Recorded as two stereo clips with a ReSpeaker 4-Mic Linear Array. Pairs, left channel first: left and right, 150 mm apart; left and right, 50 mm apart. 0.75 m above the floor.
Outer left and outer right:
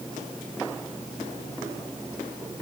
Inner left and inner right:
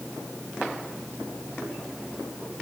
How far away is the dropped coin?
No dropped coin in this recording.